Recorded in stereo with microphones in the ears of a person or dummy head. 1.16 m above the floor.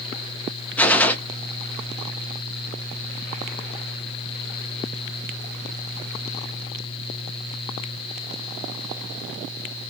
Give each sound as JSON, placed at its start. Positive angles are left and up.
{"t": 0.8, "sound": "a gunshot", "side_deg": 5, "distance_m": 0.7}